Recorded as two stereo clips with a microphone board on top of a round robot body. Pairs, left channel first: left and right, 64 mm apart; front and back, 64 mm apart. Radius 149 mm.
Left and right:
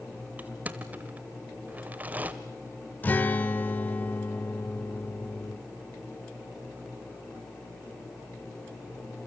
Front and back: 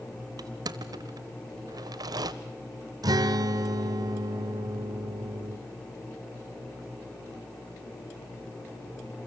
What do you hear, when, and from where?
0.4 s crushing: 155° right, 0.6 m
3.0 s a guitar: 155° left, 0.8 m